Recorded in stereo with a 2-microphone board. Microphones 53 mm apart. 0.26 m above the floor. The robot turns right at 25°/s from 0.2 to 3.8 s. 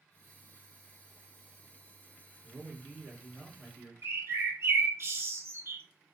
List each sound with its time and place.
2.4 s a man speaking: 130° right, 2 m; by 3.9 s 100° right, 2 m
4.0 s a bird: 55° right (ahead or behind), 1.0 m